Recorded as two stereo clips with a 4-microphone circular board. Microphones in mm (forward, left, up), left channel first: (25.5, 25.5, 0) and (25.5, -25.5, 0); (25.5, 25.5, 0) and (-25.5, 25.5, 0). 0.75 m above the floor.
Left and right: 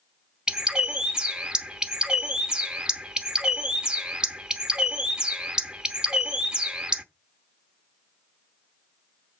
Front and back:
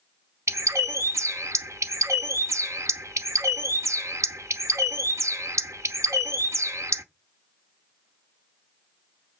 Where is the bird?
165° right, 0.8 m.